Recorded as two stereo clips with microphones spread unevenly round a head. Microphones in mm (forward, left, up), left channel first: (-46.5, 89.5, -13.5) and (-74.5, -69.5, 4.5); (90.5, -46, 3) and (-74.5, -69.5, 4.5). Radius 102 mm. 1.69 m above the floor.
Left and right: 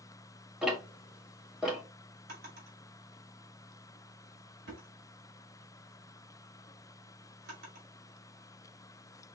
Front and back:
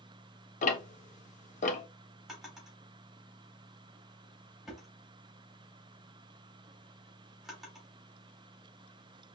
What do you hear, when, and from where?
0.6 s ticking: 20° right, 0.8 m
2.3 s a drawer: 85° right, 2.5 m